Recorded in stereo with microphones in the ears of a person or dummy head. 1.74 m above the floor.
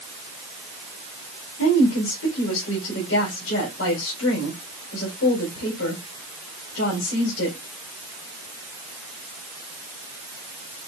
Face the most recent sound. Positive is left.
turn(degrees=80)